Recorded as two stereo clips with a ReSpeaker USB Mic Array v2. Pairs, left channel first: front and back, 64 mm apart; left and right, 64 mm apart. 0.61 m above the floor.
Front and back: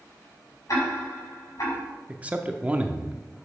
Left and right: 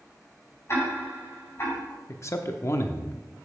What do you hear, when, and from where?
0.7 s ticking: 40° left, 5.5 m
2.1 s a man speaking: 120° left, 0.8 m